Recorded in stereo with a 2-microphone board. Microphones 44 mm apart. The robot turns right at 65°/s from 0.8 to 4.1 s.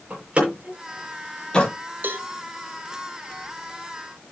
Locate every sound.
0.1 s a door slam: 30° right (ahead or behind), 8 m; by 1.7 s 30° left (ahead or behind), 8 m
2.0 s a cowbell: 55° right (ahead or behind), 2.0 m